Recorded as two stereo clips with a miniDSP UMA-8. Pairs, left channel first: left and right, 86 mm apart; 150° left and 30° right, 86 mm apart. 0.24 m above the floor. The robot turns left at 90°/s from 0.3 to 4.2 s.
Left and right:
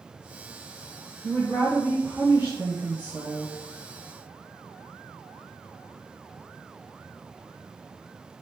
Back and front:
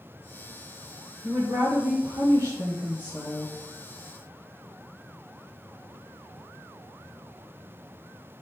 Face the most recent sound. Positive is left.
turn(degrees=160)